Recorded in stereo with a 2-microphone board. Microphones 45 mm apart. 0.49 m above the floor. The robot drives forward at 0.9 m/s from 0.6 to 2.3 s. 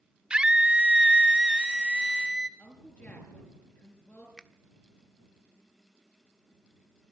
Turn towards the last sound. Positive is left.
turn(degrees=0)  # may be behind; listen again after turning